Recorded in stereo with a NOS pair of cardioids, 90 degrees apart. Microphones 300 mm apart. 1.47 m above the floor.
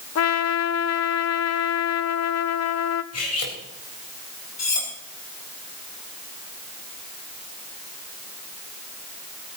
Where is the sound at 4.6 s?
60° left, 5 m.